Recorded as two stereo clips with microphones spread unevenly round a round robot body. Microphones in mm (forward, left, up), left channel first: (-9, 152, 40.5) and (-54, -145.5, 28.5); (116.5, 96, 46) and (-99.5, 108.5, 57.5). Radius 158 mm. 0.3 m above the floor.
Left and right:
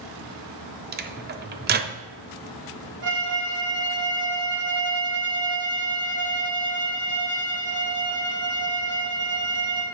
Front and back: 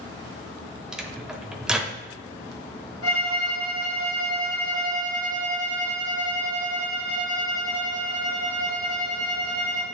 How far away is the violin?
About 2.5 m.